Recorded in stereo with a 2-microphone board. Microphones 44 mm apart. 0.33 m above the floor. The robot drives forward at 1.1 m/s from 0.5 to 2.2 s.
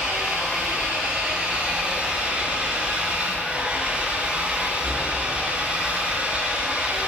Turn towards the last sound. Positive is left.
turn(degrees=-25)  # may be behind; listen again after turning